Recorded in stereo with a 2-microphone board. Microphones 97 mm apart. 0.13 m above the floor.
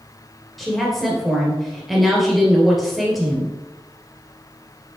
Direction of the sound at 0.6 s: Centre (ahead or behind).